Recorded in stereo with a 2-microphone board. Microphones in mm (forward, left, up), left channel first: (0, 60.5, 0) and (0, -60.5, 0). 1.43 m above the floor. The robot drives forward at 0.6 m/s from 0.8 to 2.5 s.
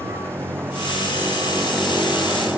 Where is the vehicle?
20° right (ahead or behind); by 2.6 s 10° right (ahead or behind).